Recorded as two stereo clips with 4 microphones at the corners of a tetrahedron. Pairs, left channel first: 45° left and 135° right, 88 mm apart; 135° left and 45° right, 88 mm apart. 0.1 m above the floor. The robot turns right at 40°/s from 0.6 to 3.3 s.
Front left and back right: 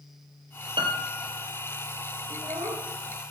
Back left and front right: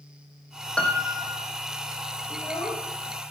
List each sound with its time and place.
0.8 s a piano: 145° right, 2.5 m; by 1.4 s 120° right, 2.5 m
2.3 s a child speaking: straight behind, 3.5 m; by 2.9 s 155° right, 3.5 m